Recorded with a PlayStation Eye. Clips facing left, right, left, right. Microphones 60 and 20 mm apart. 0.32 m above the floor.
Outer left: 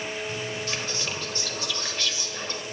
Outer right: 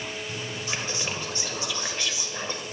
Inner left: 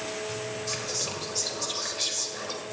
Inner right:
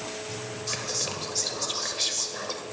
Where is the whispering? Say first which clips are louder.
Even, inner right 3 dB; 20° right (ahead or behind), 1.0 m.